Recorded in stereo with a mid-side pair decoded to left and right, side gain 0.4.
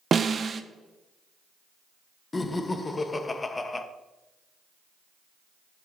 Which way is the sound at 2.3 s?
30° left.